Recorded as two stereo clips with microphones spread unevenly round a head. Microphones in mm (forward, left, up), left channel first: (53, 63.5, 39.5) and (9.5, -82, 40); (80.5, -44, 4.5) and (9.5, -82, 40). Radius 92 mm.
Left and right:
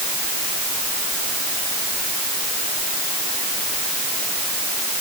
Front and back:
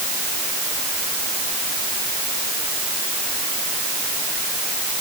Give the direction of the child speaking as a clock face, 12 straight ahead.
I don't hear a child speaking.